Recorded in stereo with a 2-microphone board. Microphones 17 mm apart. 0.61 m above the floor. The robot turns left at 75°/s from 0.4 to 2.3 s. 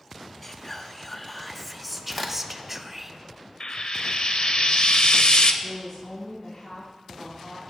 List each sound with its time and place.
0.4 s whispering: 20° left (ahead or behind), 0.6 m; by 3.1 s 10° right (ahead or behind), 0.6 m
2.1 s a crack: 15° left (ahead or behind), 1.2 m; by 2.3 s 5° left (ahead or behind), 1.2 m
3.6 s frying: 65° left (ahead or behind), 0.7 m
5.6 s a woman speaking: 60° left (ahead or behind), 3.5 m